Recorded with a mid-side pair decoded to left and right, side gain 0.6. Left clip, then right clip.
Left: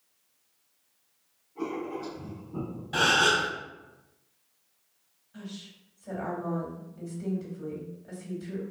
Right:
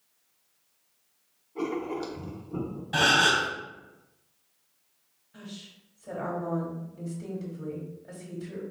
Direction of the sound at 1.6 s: 60° right.